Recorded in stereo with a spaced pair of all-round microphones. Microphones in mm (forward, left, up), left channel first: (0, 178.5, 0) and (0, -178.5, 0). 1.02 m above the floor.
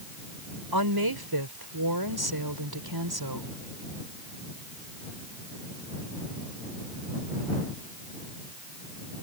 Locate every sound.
0.7 s a woman speaking: 85° right